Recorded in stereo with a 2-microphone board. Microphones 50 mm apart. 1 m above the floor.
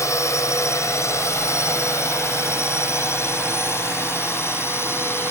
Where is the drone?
70° left (ahead or behind); by 5.3 s 50° left (ahead or behind).